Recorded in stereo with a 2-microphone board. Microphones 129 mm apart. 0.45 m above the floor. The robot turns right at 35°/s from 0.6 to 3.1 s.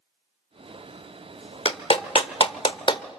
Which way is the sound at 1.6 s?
50° left (ahead or behind).